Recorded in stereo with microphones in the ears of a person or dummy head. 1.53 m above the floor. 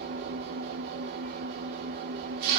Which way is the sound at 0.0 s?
60° right (ahead or behind).